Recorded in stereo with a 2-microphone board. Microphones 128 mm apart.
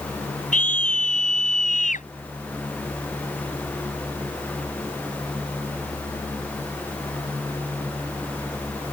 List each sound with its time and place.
0.5 s a scream: 85° left